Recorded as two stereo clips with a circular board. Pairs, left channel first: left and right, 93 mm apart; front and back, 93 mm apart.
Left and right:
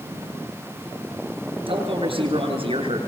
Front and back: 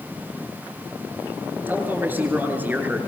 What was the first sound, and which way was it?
A man speaking, 110° right.